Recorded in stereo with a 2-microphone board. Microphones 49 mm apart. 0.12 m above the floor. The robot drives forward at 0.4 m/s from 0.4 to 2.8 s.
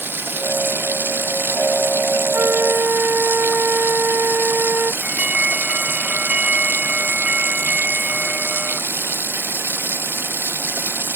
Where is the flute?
45° right (ahead or behind).